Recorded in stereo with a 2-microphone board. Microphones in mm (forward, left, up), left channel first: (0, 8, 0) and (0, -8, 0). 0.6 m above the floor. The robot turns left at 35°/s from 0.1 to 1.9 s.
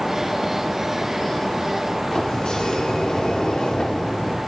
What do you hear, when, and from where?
2.1 s a sliding door: 55° left (ahead or behind), 0.9 m